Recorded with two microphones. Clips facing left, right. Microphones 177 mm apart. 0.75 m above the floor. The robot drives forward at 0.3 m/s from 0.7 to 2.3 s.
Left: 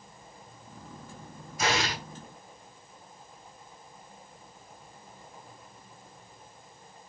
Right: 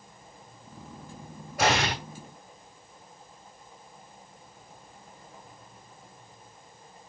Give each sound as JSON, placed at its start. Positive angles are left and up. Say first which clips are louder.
{"t": 1.6, "sound": "an explosion", "louder": "right 4 dB", "side_deg": -75, "distance_m": 3.0}